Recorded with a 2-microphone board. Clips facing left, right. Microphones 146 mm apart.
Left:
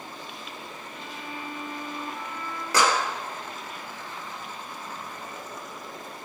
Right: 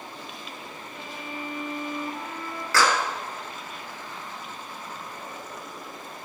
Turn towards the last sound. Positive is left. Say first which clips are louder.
# even
turn(degrees=20)  # may be behind; listen again after turning